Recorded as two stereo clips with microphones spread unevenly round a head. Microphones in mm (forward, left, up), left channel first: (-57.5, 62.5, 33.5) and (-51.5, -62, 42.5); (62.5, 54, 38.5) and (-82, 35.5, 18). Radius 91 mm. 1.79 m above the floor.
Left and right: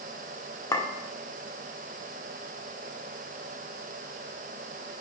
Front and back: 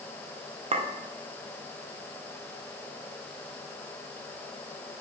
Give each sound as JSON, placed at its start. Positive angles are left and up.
{"t": 0.7, "sound": "a clink", "azimuth_deg": 150, "distance_m": 1.0}